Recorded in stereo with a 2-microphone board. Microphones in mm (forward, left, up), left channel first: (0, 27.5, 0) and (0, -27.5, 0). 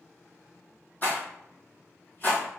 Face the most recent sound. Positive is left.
turn(degrees=35)  # may be behind; listen again after turning